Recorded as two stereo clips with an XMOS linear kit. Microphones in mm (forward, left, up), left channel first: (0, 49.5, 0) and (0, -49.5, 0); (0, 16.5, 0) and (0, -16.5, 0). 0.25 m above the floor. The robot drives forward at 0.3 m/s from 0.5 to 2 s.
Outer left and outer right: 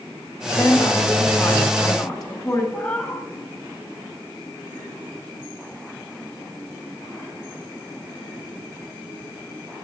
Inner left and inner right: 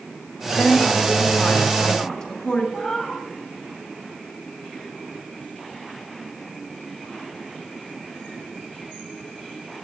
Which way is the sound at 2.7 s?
10° left (ahead or behind).